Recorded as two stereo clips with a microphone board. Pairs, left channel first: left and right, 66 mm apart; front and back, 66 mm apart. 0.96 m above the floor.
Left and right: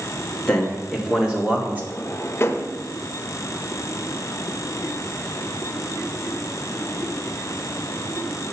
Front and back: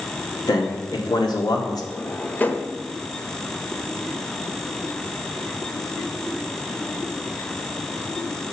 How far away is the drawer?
About 0.8 m.